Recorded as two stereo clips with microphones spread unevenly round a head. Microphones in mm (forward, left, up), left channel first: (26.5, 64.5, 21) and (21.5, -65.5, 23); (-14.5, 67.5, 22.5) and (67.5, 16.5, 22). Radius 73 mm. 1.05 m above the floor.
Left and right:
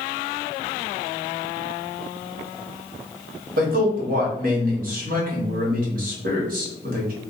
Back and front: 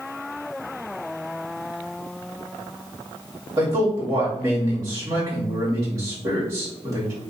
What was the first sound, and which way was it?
A man speaking, 95° right.